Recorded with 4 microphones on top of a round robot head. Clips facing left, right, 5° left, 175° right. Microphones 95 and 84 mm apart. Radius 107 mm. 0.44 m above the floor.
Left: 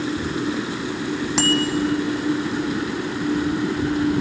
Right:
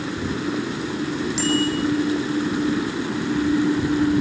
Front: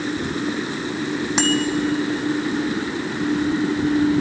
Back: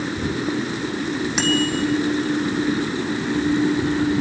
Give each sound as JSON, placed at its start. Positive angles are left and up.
{"t": 1.4, "sound": "a bicycle bell", "azimuth_deg": 65, "distance_m": 3.5}